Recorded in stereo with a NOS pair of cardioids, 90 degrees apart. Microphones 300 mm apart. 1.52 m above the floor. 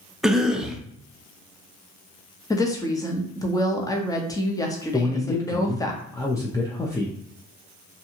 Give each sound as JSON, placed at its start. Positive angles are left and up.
{"t": 0.2, "sound": "a cough", "azimuth_deg": 0, "distance_m": 0.5}
{"t": 2.5, "sound": "a woman speaking", "azimuth_deg": 10, "distance_m": 0.7}
{"t": 4.9, "sound": "a man speaking", "azimuth_deg": 10, "distance_m": 0.5}